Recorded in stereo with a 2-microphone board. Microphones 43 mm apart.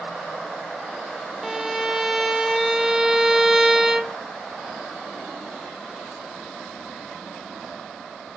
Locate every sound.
1.4 s a violin: 10° right (ahead or behind), 0.7 m